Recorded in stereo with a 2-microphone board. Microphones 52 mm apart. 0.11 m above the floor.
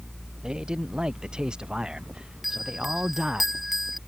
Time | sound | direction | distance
0.4 | a man speaking | 15° right (ahead or behind) | ?
2.4 | a bell | centre (ahead or behind) | ?